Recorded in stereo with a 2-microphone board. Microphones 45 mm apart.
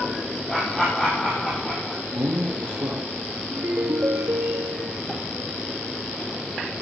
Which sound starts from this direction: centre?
Laughter, at 0.5 s.